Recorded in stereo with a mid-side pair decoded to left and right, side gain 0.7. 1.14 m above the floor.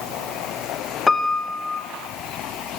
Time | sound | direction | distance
1.1 | a piano | 20° left | 1.3 m